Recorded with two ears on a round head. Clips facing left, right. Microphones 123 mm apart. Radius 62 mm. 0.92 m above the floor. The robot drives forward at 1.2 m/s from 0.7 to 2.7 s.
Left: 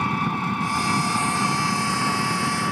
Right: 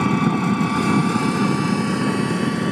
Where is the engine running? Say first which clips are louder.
Right 6 dB; 60° right (ahead or behind); by 2.7 s 40° right (ahead or behind).